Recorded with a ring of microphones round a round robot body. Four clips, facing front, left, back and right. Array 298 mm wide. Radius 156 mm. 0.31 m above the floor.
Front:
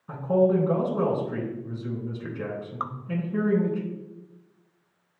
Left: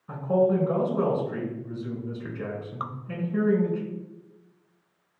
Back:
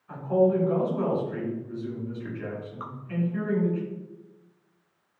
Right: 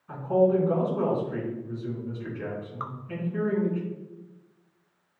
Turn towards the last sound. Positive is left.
turn(degrees=20)